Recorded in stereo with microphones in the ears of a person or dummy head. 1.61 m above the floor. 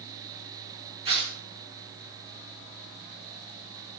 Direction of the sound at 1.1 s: 25° right (ahead or behind).